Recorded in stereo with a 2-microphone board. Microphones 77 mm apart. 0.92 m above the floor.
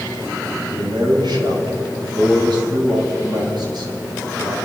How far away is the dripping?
I don't hear dripping.